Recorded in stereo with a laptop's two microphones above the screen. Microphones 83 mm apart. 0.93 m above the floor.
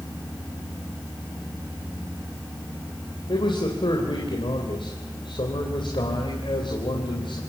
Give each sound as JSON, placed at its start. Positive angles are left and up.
{"t": 3.3, "sound": "a man speaking", "side_deg": 80, "distance_m": 3.5}